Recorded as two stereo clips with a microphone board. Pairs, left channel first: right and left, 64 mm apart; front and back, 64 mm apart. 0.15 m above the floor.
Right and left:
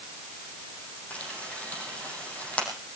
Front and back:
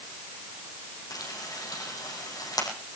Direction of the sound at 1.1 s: 20° right.